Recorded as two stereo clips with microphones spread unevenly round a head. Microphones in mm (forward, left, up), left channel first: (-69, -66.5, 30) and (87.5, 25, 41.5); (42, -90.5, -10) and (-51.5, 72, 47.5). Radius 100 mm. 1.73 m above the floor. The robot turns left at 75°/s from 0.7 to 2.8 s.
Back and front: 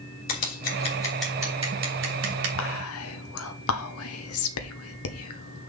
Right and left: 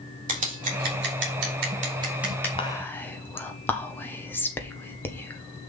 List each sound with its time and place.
0.3 s scissors: 160° left, 3 m; by 2.5 s 25° left, 3 m
2.6 s whispering: 130° right, 1.1 m; by 5.7 s 145° right, 1.1 m